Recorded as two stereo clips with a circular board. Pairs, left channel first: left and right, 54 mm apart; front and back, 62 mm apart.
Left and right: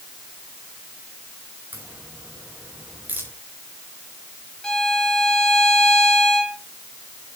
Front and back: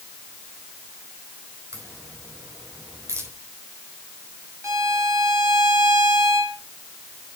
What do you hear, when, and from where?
1.7 s a crack: 140° right, 5 m
4.6 s a violin: 165° left, 1.9 m